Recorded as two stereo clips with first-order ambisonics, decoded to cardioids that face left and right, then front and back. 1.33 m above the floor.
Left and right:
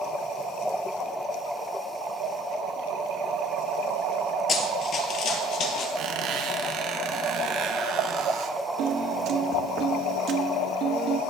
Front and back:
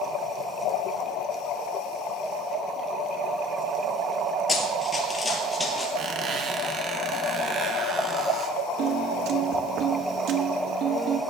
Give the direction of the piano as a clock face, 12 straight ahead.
5 o'clock.